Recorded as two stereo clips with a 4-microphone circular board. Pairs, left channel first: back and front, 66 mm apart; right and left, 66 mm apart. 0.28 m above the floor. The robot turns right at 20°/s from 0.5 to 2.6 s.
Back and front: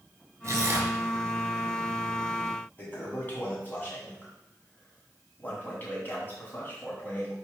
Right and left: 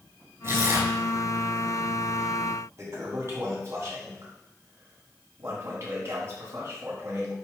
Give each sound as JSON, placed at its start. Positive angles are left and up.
{"t": 0.4, "sound": "tearing paper", "azimuth_deg": 45, "distance_m": 2.0}
{"t": 2.8, "sound": "a toilet flushing", "azimuth_deg": 125, "distance_m": 3.0}